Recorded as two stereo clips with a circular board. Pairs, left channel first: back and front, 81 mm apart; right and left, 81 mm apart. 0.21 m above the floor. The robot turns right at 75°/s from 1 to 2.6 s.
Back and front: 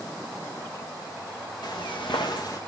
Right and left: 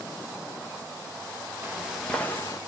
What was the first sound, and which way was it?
Footsteps, 155° left.